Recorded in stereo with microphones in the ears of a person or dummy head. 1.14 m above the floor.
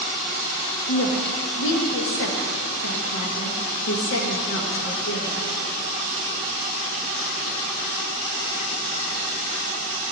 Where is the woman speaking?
65° left (ahead or behind), 1.2 m.